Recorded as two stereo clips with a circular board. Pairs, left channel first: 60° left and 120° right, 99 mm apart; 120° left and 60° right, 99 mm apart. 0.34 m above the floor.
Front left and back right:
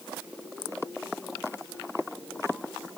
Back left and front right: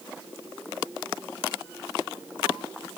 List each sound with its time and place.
Only background noise.